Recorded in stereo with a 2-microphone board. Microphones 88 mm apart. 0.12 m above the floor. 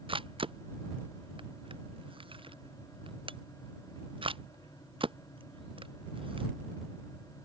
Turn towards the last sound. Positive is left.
turn(degrees=-80)